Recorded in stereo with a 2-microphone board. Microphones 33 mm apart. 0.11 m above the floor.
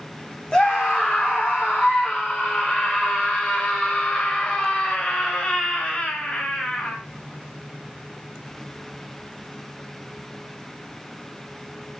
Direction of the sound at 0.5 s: 25° left (ahead or behind).